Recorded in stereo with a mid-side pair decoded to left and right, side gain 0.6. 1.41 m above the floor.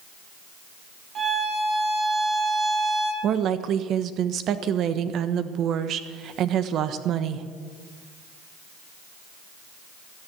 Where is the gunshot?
No gunshot in this recording.